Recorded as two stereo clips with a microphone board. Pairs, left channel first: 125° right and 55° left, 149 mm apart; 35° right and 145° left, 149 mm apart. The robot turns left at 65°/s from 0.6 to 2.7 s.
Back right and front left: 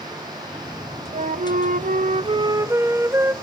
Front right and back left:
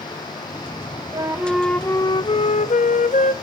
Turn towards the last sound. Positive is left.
turn(degrees=-15)